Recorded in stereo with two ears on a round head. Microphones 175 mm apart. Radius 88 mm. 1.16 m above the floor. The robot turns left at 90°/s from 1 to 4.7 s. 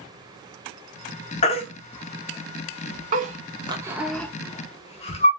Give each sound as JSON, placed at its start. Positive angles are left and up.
{"t": 1.4, "sound": "a baby crying", "side_deg": 35, "distance_m": 0.8}